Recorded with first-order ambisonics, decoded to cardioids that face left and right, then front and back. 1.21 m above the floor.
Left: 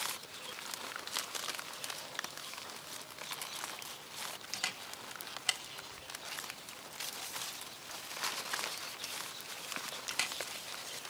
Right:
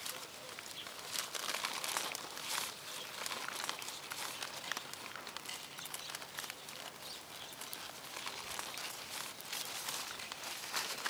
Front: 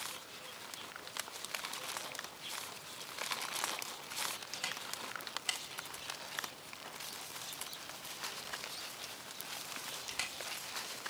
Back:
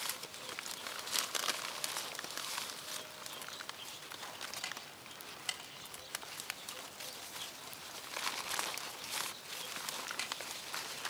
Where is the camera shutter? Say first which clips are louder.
Left 3 dB, front 3 dB; 80° left, 1.1 m.